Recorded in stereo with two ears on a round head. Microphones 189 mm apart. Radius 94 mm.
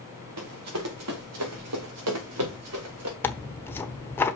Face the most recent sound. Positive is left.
turn(degrees=10)  # may be behind; listen again after turning